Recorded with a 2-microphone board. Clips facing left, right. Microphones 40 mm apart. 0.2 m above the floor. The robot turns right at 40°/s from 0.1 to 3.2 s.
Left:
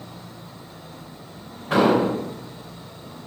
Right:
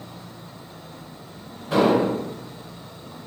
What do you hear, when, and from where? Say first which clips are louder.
1.7 s an explosion: left 1 dB; 40° left (ahead or behind), 1.1 m; by 2.2 s 45° left (ahead or behind), 1.1 m